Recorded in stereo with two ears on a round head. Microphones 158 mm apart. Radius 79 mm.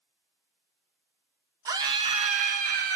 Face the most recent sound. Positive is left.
turn(degrees=-55)  # may be behind; listen again after turning